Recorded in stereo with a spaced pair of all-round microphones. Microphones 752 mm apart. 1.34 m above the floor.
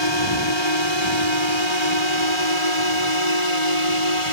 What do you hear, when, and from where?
0.0 s a drone: 35° left (ahead or behind); by 4.3 s 45° left (ahead or behind)